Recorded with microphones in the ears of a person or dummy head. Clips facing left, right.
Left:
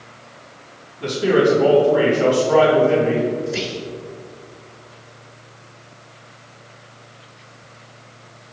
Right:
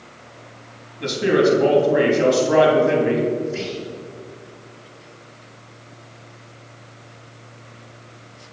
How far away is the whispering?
About 1.3 m.